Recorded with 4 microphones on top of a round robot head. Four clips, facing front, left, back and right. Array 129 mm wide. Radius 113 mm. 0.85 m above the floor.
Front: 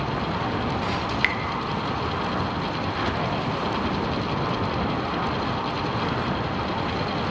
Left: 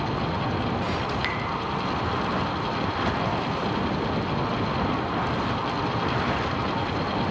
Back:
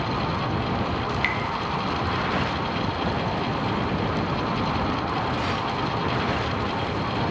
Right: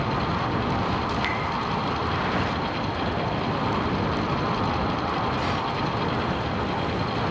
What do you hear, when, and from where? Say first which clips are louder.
1.1 s dripping: right 2 dB, even; 25° left, 0.8 m